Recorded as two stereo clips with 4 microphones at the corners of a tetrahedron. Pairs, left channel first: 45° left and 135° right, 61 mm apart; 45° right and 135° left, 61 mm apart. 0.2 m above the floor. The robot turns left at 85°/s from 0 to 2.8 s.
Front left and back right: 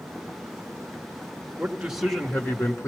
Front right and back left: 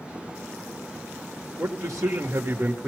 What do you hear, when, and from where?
1.6 s a man speaking: 170° left, 2.5 m; by 2.9 s 70° left, 2.5 m